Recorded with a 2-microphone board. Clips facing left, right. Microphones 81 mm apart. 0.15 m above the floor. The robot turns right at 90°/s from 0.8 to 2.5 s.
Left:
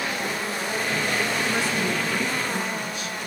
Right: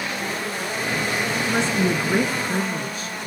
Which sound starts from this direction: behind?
A woman speaking, at 1.4 s.